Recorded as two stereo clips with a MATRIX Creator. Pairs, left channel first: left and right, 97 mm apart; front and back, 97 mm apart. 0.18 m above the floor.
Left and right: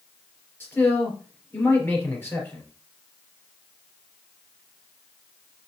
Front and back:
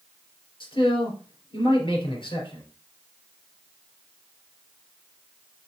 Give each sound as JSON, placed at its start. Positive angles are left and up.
{"t": 0.6, "sound": "a man speaking", "azimuth_deg": 25, "distance_m": 3.5}